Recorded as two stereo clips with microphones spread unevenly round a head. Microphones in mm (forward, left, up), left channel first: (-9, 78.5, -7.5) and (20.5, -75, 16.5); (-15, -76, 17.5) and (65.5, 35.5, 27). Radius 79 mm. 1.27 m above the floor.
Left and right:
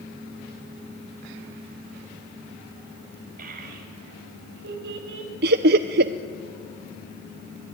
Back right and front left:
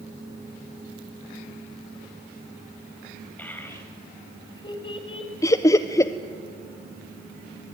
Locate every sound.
3.4 s a child speaking: 45° right, 4 m; by 5.3 s 75° right, 4 m
5.4 s laughter: 65° right, 0.6 m